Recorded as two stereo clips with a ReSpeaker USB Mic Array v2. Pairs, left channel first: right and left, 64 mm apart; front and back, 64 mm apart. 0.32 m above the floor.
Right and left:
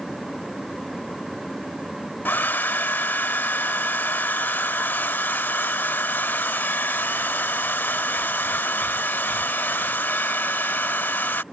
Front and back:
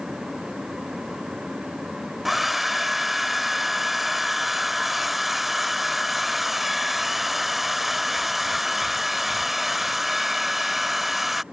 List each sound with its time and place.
2.2 s a hair dryer: 95° right